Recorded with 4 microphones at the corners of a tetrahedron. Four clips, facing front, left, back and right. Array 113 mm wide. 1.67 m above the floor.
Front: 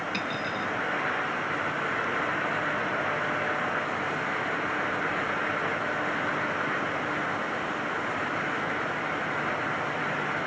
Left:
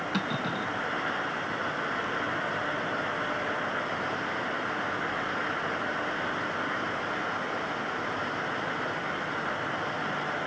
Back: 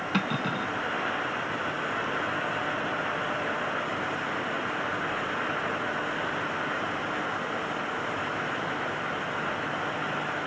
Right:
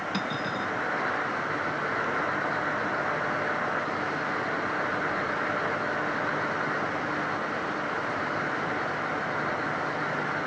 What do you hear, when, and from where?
0.1 s cutlery clinking: 170° left